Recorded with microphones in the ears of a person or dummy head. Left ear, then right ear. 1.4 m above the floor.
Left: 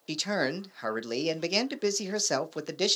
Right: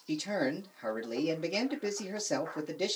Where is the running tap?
No running tap in this recording.